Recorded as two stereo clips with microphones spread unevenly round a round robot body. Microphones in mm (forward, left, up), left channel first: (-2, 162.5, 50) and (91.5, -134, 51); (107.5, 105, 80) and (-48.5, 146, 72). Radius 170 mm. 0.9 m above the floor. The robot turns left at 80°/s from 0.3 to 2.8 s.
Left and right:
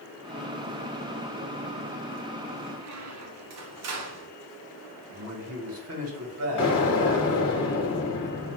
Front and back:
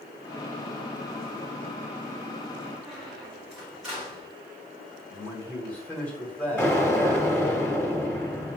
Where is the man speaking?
95° right, 1.2 m.